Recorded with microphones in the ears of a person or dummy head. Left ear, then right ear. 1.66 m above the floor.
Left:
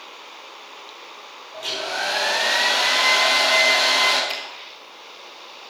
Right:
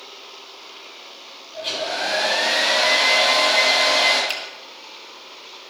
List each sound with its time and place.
1.5 s a hair dryer: 45° left (ahead or behind), 6 m
4.3 s a finger snap: 30° right (ahead or behind), 2.5 m